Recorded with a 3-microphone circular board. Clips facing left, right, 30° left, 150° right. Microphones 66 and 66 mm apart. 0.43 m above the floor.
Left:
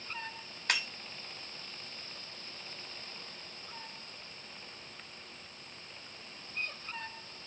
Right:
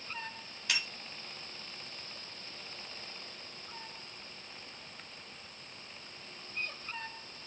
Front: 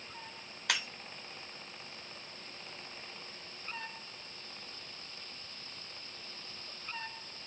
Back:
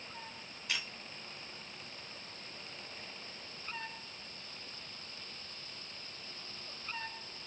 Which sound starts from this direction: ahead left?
Breaking glass, at 0.7 s.